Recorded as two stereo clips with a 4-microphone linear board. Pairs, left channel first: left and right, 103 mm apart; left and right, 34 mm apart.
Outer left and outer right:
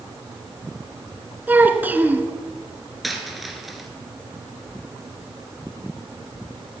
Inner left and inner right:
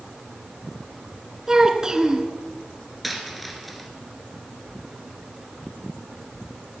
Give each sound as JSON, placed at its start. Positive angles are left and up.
{"t": 1.5, "sound": "a child speaking", "side_deg": -15, "distance_m": 1.7}
{"t": 3.0, "sound": "a dropped coin", "side_deg": 0, "distance_m": 1.9}